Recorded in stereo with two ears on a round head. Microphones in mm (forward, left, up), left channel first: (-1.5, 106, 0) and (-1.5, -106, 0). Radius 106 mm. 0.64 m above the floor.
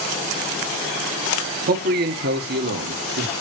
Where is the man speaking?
40° right (ahead or behind), 1.3 m; by 3.3 s 50° right (ahead or behind), 2.0 m.